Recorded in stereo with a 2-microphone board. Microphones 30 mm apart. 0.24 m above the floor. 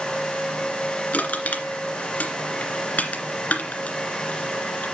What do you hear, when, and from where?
1.1 s crushing: 60° left (ahead or behind), 2 m